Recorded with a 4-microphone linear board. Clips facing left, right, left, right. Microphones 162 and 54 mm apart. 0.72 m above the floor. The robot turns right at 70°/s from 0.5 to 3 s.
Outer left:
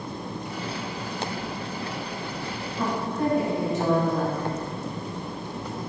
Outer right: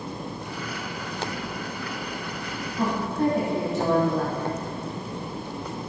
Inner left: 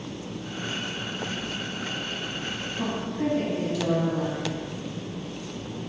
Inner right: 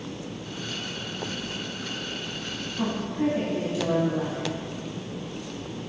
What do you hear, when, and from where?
2.8 s a woman speaking: 30° right (ahead or behind), 1.1 m; by 4.6 s 35° right (ahead or behind), 1.1 m